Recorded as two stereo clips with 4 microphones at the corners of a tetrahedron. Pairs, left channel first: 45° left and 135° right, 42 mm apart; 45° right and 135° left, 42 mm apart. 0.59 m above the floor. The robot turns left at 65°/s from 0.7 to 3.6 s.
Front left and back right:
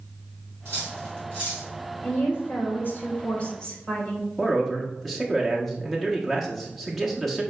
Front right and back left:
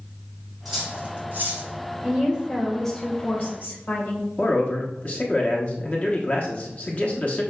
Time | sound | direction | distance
0.7 | cutlery clinking | 135° right | 2.5 m
2.0 | a woman speaking | 90° left | 2.0 m
4.4 | a man speaking | 40° right | 1.0 m